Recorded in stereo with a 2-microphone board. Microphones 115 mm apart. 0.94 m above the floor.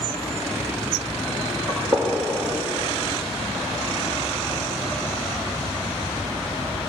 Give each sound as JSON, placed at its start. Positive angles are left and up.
{"t": 1.7, "sound": "a gunshot", "side_deg": -30, "distance_m": 9.5}